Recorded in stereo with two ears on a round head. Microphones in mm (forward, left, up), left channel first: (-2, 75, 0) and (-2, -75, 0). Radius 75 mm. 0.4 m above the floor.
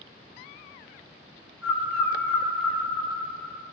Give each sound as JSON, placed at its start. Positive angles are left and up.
{"t": 1.6, "sound": "a bird", "side_deg": 0, "distance_m": 0.5}